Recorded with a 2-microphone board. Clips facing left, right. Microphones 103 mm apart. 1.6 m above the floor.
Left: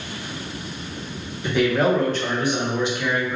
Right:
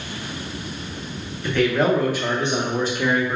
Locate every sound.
1.4 s a man speaking: 15° left (ahead or behind), 0.8 m; by 3.4 s 55° right (ahead or behind), 0.8 m